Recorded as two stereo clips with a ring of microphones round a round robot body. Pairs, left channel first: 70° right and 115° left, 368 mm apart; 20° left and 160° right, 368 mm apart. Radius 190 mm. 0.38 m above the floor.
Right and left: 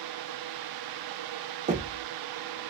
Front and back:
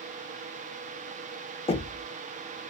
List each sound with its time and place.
1.7 s knocking: 75° left, 0.5 m